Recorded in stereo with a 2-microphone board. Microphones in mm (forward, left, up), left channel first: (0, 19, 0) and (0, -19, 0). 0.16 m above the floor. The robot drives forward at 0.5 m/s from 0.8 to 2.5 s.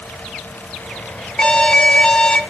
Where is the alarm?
25° left (ahead or behind), 0.9 m.